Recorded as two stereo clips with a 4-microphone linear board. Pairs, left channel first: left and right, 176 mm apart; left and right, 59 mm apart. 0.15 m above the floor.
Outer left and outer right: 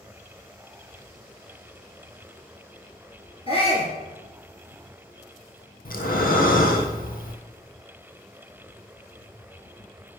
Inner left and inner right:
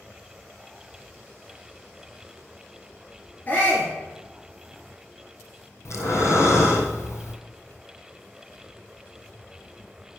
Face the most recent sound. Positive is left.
turn(degrees=60)  # may be behind; listen again after turning